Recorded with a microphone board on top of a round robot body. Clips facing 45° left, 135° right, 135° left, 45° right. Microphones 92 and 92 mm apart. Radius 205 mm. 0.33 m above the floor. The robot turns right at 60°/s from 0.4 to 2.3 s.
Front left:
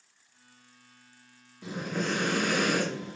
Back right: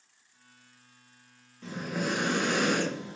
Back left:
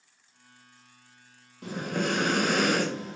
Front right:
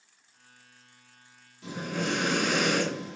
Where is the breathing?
125° left, 1.3 m; by 3.2 s 165° left, 1.3 m.